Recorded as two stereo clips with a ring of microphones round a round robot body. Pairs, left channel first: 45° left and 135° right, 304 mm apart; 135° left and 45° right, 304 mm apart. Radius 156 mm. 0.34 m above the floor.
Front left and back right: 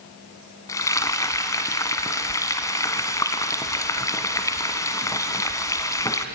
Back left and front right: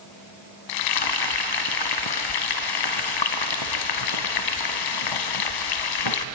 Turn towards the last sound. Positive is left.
turn(degrees=125)